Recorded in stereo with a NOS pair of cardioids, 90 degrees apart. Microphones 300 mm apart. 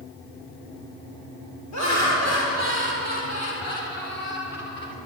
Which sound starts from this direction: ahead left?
Laughter, at 1.7 s.